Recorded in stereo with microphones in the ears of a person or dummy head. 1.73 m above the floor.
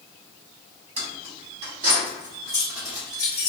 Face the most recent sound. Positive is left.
turn(degrees=10)  # may be behind; listen again after turning